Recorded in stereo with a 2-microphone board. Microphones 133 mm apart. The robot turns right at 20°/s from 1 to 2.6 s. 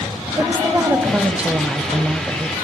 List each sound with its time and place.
0.4 s a woman speaking: 15° right (ahead or behind), 1.6 m; by 2.5 s centre (ahead or behind), 1.6 m